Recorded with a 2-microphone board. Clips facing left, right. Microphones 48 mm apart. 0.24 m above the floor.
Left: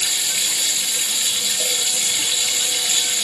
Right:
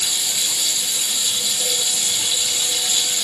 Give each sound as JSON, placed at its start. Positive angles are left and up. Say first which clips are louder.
{"t": 0.0, "sound": "running water", "louder": "left 1 dB", "side_deg": 55, "distance_m": 3.5}